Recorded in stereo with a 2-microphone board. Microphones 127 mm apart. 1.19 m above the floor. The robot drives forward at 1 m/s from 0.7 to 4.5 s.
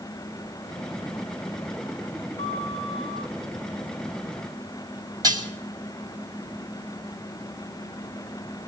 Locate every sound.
2.4 s a flute: 60° left (ahead or behind), 2.5 m; by 3.3 s 45° left (ahead or behind), 3 m
5.2 s dishes clattering: 30° right (ahead or behind), 4 m